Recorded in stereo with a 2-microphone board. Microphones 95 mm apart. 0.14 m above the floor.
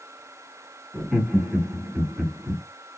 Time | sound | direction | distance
0.9 | laughter | 15° right (ahead or behind) | 1.5 m